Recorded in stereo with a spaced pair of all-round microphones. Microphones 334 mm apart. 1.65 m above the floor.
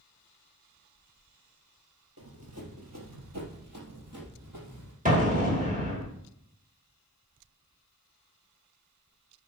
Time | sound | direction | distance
2.2 | running footsteps | 45° right (ahead or behind) | 2.5 m
5.0 | an explosion | 25° right (ahead or behind) | 2.5 m